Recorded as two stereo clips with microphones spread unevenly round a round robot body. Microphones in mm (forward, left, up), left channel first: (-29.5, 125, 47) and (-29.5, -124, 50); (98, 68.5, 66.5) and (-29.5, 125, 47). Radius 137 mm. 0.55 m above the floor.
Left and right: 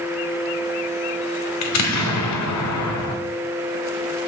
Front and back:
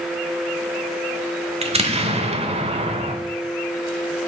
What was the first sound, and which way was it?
An explosion, 110° left.